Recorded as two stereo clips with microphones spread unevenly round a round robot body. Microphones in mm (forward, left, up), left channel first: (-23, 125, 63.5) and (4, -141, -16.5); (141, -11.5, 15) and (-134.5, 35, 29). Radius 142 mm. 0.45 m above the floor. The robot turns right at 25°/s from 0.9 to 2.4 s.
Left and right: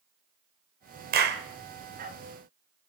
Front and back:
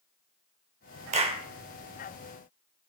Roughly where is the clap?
Behind right.